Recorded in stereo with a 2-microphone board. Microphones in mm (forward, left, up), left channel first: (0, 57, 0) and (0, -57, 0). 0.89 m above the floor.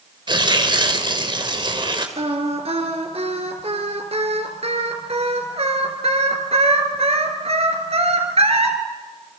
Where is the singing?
65° right (ahead or behind), 3.5 m.